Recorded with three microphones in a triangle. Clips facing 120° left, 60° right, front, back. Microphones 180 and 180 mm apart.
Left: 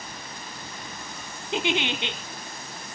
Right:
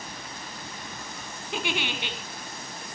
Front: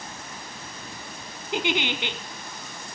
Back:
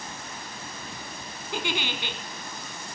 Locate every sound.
1.5 s a giggle: 60° left, 1.2 m